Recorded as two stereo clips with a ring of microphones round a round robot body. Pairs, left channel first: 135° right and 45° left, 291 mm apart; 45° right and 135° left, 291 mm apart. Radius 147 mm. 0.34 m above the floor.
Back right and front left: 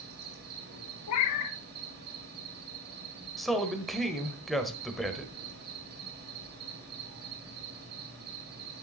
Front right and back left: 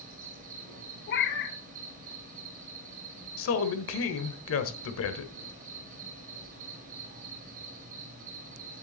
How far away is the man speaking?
About 1.2 m.